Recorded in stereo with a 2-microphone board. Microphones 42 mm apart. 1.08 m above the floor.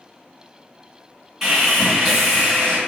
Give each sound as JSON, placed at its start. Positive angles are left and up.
{"t": 1.4, "sound": "sawing", "side_deg": -5, "distance_m": 1.6}